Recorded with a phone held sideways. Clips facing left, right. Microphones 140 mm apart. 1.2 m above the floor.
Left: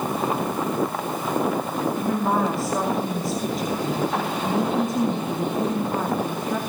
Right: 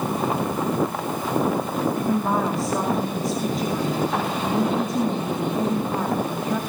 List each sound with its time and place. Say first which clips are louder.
2.0 s a woman speaking: left 1 dB; centre (ahead or behind), 2 m